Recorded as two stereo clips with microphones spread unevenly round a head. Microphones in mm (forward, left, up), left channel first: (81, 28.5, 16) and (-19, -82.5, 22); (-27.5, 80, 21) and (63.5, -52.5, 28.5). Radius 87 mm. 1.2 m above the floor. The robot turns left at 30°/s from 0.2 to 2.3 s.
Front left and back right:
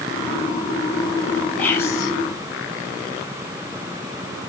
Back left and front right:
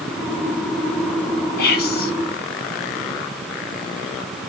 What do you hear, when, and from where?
1.6 s whispering: 130° left, 0.9 m; by 2.1 s 110° left, 0.9 m